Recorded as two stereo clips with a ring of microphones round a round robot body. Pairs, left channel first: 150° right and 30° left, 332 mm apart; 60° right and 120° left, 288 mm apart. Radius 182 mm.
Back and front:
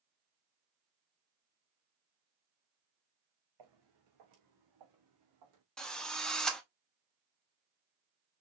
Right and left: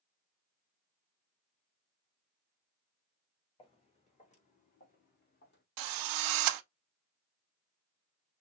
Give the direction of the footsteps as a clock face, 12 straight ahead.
12 o'clock.